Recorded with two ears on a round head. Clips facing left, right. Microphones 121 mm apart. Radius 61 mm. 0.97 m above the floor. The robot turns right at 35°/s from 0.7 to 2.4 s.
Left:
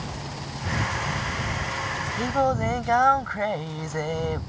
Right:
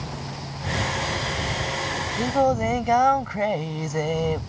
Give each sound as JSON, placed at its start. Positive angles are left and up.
{"t": 2.2, "sound": "singing", "side_deg": -10}